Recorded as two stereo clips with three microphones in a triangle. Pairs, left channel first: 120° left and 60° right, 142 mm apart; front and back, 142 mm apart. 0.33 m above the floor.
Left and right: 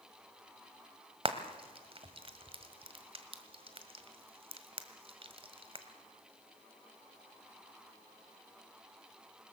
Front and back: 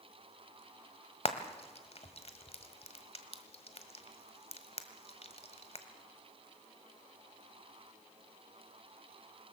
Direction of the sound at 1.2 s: 25° right.